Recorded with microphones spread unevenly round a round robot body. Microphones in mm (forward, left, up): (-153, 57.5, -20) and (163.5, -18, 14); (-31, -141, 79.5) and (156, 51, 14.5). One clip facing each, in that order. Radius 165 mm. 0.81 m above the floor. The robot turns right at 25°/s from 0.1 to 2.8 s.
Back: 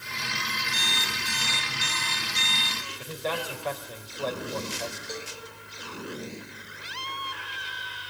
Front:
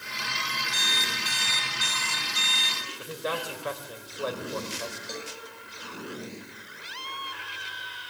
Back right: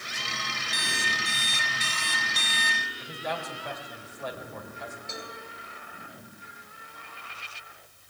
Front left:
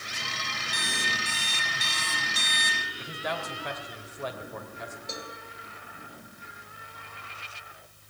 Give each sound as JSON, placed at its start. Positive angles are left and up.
{"t": 0.7, "sound": "an alarm clock", "azimuth_deg": -80, "distance_m": 6.0}
{"t": 3.0, "sound": "a man speaking", "azimuth_deg": 60, "distance_m": 4.0}
{"t": 5.1, "sound": "a cowbell", "azimuth_deg": -5, "distance_m": 3.5}